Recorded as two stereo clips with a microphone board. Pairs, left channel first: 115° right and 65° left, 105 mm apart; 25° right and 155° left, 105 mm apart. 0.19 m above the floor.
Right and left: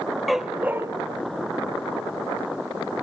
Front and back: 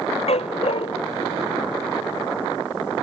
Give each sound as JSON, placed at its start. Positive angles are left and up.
{"t": 0.3, "sound": "a dog barking", "azimuth_deg": -20}